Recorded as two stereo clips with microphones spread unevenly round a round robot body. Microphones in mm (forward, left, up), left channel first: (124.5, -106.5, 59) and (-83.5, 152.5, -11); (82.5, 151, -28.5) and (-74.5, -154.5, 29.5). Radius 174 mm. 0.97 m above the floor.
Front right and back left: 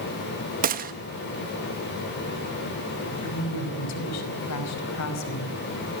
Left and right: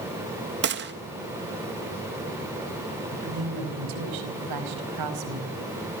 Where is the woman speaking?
95° right, 5 m.